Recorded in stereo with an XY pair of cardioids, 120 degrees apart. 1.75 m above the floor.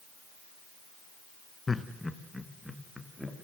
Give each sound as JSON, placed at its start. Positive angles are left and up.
{"t": 1.7, "sound": "laughter", "azimuth_deg": 20, "distance_m": 1.7}